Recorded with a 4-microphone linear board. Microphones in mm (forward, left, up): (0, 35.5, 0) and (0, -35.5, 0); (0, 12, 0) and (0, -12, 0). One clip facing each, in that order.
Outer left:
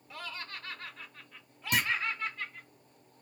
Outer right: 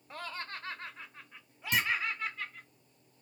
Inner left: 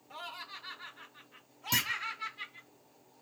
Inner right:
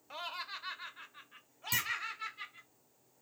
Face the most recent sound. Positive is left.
turn(degrees=65)  # may be behind; listen again after turning